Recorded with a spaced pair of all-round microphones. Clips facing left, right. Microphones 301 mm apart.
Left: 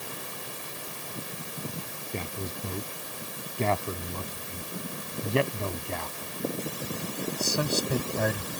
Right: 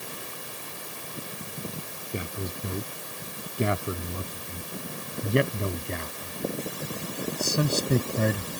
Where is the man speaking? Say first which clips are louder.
Right 2 dB; 15° right (ahead or behind); by 8.5 s 25° right (ahead or behind).